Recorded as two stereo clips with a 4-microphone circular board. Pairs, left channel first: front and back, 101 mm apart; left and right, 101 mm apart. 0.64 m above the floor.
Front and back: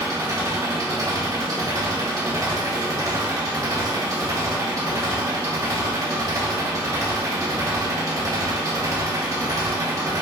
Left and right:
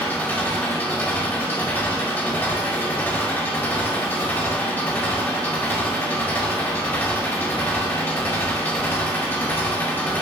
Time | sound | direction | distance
0.0 | an engine running | 155° left | 1.0 m